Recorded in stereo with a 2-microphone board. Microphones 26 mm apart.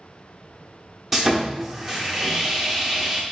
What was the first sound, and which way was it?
Sawing, 10° right (ahead or behind).